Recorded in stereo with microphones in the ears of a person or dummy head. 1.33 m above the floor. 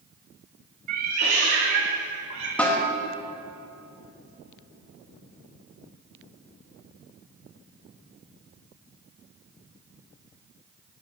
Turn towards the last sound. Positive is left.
turn(degrees=5)  # may be behind; listen again after turning